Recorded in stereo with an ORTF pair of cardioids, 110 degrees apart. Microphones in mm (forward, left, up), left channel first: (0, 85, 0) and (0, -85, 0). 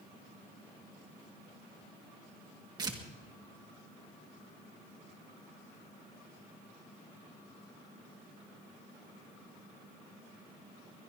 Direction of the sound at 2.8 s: 25° right.